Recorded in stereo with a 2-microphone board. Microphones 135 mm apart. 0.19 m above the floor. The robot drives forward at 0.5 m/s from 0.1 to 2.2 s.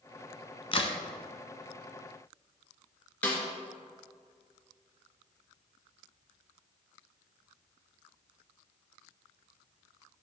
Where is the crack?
40° left (ahead or behind), 1.2 m; by 1.0 s 45° left (ahead or behind), 1.2 m.